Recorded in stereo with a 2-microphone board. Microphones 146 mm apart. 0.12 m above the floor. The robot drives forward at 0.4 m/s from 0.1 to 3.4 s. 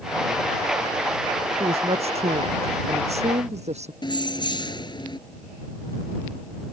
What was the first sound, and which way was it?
A woman speaking, 45° right (ahead or behind).